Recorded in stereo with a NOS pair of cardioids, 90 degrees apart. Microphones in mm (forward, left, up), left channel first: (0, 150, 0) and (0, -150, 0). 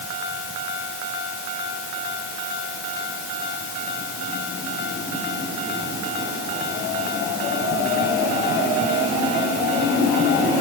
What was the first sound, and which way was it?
Only background noise.